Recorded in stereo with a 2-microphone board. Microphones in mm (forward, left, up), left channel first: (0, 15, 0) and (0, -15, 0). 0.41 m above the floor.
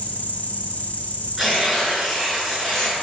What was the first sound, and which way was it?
An insect, 55° left (ahead or behind).